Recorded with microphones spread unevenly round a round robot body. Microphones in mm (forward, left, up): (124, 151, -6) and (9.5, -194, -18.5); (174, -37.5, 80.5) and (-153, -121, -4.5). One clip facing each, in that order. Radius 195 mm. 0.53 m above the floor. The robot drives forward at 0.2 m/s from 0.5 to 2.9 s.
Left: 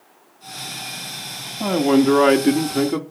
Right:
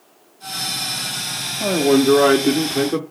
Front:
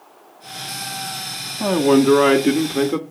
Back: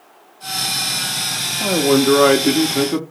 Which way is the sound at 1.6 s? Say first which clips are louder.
Right 1 dB, front 1 dB; 100° left.